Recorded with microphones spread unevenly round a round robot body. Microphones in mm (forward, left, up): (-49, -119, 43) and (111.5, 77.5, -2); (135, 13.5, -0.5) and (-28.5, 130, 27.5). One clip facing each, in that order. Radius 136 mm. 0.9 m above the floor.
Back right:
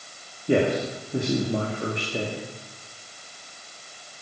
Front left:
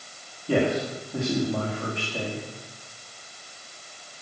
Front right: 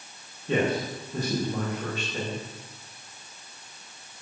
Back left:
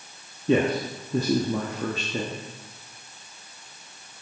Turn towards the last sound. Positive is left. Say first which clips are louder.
# back right 2 dB, back left 4 dB
turn(degrees=155)